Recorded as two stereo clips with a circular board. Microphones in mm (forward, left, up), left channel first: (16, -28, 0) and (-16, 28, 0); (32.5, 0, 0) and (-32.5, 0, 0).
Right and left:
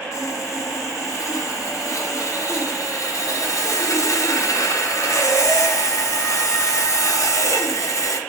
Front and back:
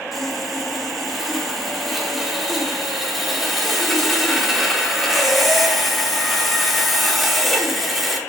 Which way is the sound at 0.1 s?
90° right.